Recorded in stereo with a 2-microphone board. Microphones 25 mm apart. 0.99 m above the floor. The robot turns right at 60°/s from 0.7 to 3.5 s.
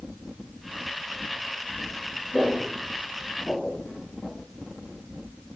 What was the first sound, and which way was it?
Footsteps, 15° right (ahead or behind).